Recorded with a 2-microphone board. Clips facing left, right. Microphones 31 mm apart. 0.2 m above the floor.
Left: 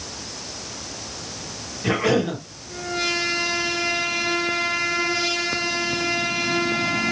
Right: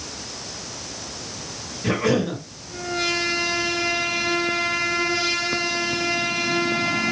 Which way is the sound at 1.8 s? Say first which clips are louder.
Left 1 dB; 10° left (ahead or behind).